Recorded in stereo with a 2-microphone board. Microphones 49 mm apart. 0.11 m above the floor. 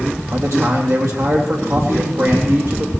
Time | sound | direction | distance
0.3 | a man speaking | 65° right (ahead or behind) | 3.5 m